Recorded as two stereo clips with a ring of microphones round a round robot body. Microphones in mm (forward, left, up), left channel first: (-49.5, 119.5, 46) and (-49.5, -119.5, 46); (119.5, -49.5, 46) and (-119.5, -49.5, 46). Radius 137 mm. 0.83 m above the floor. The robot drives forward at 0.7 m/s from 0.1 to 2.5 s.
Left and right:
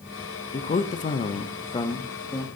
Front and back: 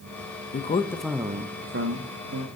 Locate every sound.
0.5 s a man speaking: 40° left, 0.7 m; by 2.6 s 165° left, 1.2 m